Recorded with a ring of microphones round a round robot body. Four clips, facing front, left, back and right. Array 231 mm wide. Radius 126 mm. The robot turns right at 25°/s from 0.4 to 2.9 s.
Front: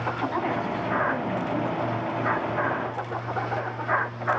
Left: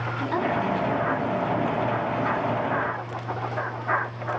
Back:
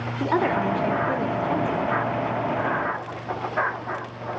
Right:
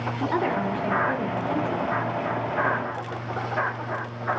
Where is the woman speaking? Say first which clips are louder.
Even, back 8 dB; 170° right, 3.5 m; by 1.9 s 130° right, 3.5 m.